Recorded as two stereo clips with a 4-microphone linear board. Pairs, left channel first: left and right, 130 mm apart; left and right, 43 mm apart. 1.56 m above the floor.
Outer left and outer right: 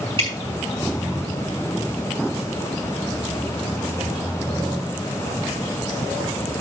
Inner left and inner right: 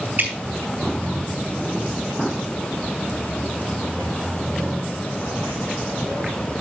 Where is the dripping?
40° right (ahead or behind), 6 m.